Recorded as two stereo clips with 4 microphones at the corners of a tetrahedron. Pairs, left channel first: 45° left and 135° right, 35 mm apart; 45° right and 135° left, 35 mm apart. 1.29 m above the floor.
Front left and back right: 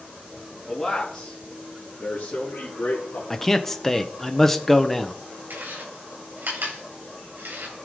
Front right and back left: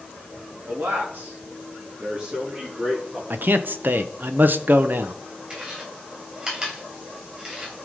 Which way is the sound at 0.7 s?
125° left.